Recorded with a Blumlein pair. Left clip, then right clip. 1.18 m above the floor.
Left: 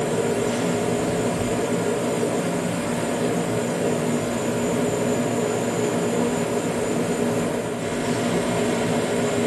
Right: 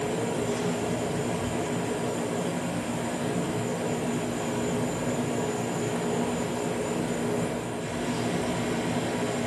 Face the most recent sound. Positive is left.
turn(degrees=65)